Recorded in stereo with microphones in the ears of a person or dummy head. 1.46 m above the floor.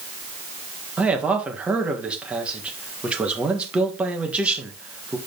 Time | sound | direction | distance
1.0 | a man speaking | 10° right (ahead or behind) | 1.7 m